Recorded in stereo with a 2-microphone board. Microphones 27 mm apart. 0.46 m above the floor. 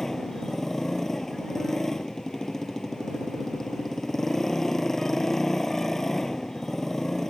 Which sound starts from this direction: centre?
A motorcycle, at 0.0 s.